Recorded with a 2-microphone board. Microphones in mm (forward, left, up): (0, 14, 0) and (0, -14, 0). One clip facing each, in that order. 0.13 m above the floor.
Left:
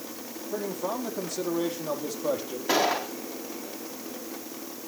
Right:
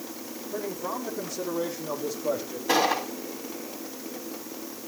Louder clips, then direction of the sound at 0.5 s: Left 1 dB; 65° left (ahead or behind).